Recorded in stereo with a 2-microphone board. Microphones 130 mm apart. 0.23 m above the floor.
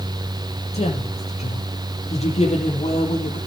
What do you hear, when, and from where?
0.7 s a woman speaking: 55° left (ahead or behind), 6 m